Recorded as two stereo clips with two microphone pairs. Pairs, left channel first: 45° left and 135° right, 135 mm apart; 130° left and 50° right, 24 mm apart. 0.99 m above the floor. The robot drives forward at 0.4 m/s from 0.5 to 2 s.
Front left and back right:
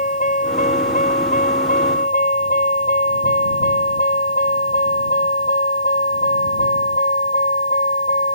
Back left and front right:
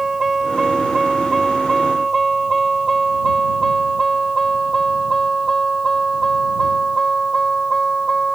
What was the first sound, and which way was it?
A vehicle, 30° left.